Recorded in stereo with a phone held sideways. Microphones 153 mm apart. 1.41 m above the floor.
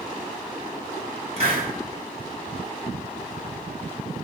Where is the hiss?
45° right (ahead or behind), 5.5 m.